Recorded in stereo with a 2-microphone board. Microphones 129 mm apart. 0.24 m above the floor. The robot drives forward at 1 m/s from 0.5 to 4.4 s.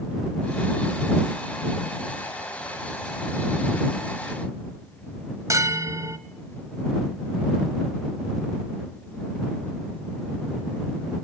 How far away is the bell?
About 1.0 m.